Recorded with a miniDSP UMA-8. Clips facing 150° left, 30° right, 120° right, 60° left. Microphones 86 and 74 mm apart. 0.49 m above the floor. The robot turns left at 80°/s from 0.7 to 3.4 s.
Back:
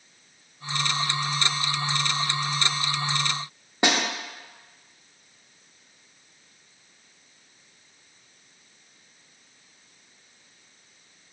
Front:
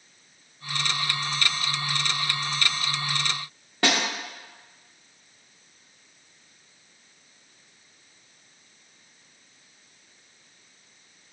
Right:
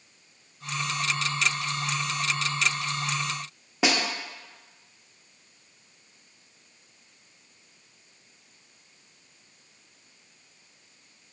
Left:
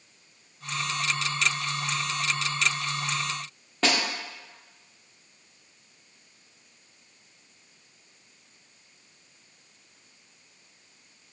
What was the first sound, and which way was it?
A snare drum, straight behind.